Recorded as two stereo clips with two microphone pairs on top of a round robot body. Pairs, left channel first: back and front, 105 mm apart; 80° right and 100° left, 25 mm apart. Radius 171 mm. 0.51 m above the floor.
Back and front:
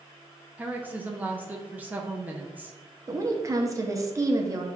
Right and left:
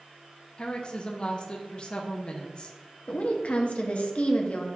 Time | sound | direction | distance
0.6 | a woman speaking | 60° right | 0.8 m
3.1 | a woman speaking | 50° right | 0.8 m